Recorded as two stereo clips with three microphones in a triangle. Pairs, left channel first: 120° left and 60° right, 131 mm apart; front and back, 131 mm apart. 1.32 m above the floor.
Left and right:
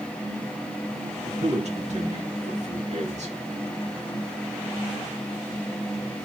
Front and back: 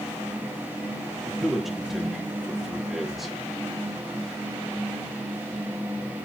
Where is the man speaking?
90° right, 2.5 m.